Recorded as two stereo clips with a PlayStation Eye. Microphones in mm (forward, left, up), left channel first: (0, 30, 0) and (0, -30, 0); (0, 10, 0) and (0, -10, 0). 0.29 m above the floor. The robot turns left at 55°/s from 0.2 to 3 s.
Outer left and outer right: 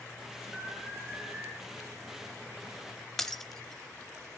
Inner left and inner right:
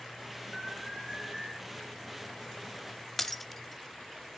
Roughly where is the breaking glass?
Centre.